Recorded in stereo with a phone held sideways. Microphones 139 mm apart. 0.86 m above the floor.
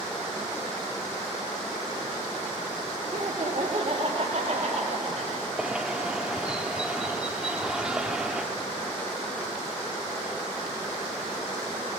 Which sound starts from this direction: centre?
A bird, at 5.6 s.